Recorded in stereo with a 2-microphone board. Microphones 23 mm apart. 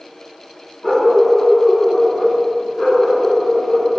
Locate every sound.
0.8 s a dog barking: 35° left (ahead or behind), 1.7 m; by 4.0 s 10° left (ahead or behind), 3.5 m